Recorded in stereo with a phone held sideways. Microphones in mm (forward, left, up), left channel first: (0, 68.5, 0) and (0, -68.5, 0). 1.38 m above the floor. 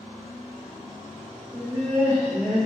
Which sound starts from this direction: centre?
Laughter, at 1.5 s.